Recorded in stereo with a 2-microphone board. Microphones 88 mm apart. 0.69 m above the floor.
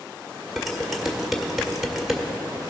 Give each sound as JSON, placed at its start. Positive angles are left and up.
{"t": 0.6, "sound": "dishes clattering", "side_deg": -5, "distance_m": 1.5}